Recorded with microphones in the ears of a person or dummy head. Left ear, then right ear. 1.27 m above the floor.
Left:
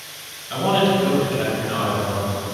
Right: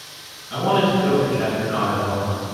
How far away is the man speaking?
About 1.9 m.